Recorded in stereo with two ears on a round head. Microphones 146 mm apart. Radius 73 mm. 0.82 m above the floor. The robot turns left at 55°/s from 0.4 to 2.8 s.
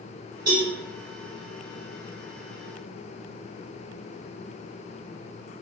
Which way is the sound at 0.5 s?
25° right (ahead or behind).